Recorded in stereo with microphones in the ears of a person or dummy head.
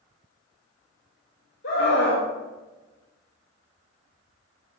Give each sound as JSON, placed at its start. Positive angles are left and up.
{"t": 1.6, "sound": "a scream", "side_deg": 50, "distance_m": 0.6}